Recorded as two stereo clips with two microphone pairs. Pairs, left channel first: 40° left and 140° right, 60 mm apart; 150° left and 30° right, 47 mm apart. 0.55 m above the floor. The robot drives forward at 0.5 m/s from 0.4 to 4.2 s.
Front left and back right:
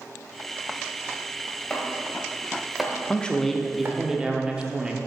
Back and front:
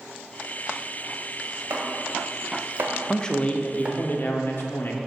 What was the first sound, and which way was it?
Chopping, 35° right.